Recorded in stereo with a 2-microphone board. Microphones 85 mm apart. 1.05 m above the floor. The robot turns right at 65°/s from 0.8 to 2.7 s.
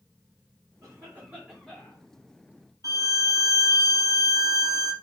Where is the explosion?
No explosion in this recording.